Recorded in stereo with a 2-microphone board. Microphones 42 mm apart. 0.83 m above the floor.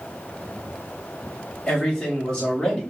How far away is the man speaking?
About 1.9 m.